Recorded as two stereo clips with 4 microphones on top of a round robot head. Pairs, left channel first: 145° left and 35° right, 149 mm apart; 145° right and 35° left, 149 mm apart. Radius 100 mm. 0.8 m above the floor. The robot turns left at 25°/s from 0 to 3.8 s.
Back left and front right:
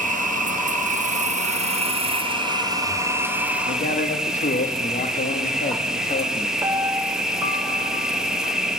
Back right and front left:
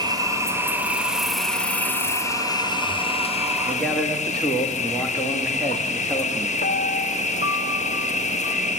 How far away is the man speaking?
About 1.9 m.